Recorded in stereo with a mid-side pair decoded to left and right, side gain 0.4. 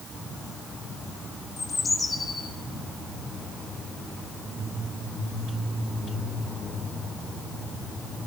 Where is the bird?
35° left, 3 m.